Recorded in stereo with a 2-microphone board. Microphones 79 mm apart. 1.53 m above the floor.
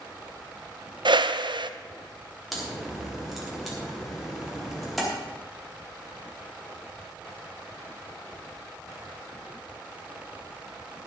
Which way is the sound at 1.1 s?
70° right (ahead or behind).